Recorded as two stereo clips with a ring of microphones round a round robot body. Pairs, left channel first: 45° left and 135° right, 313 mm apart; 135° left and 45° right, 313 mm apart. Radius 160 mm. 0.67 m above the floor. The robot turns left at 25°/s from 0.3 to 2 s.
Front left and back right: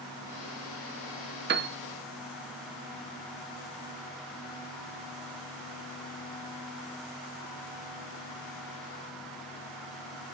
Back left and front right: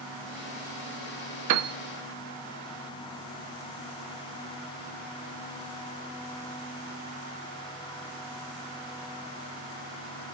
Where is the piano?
80° right, 0.6 m; by 1.8 s 85° right, 0.6 m.